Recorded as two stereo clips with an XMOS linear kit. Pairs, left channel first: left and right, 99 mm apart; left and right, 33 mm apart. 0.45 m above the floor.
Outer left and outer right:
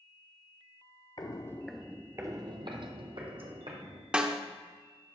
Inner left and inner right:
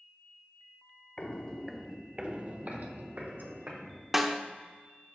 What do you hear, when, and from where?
1.2 s footsteps: 45° left (ahead or behind), 0.6 m; by 4.0 s 65° right (ahead or behind), 2 m
4.1 s a snare drum: 10° right (ahead or behind), 0.5 m